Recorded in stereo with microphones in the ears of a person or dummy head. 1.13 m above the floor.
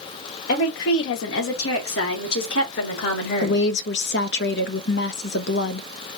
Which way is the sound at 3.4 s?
55° left (ahead or behind).